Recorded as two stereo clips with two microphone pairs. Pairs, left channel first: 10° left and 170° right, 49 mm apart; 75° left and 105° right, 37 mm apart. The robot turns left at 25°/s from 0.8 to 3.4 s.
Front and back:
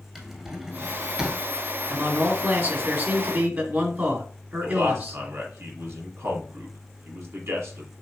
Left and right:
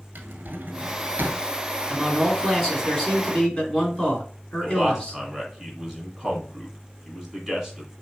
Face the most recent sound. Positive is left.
turn(degrees=170)